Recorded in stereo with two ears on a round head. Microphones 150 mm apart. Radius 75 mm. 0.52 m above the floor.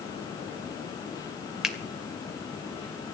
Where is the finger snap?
5° right (ahead or behind), 2 m.